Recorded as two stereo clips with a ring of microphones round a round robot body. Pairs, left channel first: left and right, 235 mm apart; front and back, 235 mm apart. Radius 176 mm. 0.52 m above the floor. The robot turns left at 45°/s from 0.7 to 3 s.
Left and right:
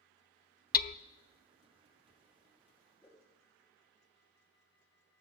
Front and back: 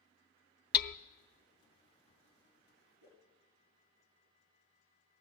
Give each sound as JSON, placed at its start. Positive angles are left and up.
{"t": 0.7, "sound": "hammering", "azimuth_deg": 40, "distance_m": 0.6}
{"t": 3.0, "sound": "a whoosh", "azimuth_deg": 175, "distance_m": 5.0}